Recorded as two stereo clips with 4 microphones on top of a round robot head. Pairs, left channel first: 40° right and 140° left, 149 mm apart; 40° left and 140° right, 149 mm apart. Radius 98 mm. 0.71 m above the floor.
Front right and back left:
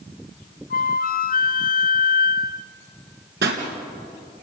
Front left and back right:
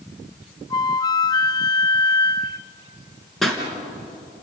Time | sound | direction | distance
0.7 | a flute | 20° right | 0.9 m
3.4 | a pop | 130° left | 3.5 m